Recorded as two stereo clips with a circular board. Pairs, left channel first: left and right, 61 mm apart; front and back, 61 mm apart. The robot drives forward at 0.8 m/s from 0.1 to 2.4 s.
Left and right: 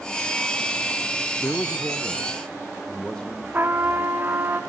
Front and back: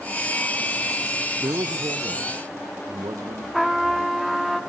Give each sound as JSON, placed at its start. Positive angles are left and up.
{"t": 1.4, "sound": "a man speaking", "azimuth_deg": 145, "distance_m": 0.5}
{"t": 3.5, "sound": "a trumpet", "azimuth_deg": -90, "distance_m": 1.1}